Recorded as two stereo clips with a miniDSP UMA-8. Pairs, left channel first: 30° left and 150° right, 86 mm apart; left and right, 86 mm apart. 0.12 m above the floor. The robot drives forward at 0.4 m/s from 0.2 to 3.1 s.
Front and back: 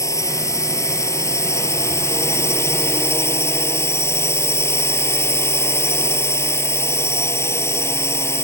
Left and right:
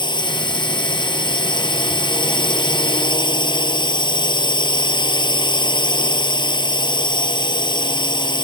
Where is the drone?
80° left; by 8.5 s 85° left.